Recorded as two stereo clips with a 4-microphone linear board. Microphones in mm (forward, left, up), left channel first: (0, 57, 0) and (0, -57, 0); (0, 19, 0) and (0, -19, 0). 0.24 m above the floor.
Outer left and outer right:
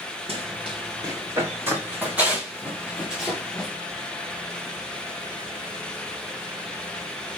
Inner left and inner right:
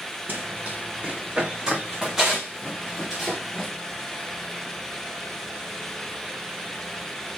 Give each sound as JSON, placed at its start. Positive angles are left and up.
{"t": 0.3, "sound": "running footsteps", "side_deg": -55, "distance_m": 2.5}